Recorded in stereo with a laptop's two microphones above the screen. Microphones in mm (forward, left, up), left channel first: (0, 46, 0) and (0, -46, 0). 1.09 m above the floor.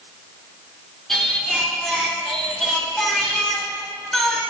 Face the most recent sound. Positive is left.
turn(degrees=5)  # may be behind; listen again after turning